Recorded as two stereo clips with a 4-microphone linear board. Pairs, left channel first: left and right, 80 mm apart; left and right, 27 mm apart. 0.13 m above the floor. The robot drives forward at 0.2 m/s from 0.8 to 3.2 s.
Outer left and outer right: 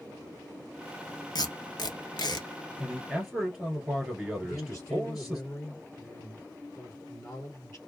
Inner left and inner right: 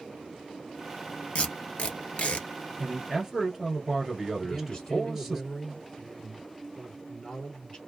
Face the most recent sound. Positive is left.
turn(degrees=45)  # may be behind; listen again after turning